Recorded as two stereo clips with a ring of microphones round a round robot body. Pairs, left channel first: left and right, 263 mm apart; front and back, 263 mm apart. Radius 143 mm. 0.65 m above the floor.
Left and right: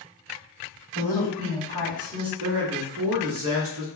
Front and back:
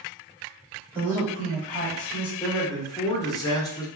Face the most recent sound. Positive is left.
turn(degrees=-75)